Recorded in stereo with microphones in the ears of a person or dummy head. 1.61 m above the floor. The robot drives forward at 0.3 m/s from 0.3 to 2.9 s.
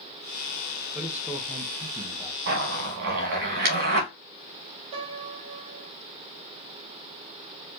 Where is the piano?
30° right (ahead or behind), 2 m.